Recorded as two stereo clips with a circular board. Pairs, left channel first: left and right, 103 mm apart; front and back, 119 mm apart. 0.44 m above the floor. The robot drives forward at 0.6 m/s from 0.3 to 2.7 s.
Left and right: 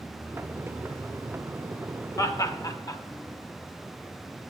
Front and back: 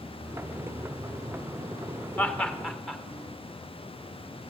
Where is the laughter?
65° left, 1.0 m; by 3.0 s 95° left, 1.0 m.